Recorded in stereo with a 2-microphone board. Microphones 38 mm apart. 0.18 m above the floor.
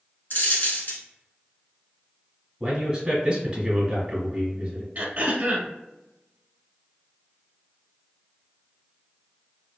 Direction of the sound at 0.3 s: 60° left (ahead or behind).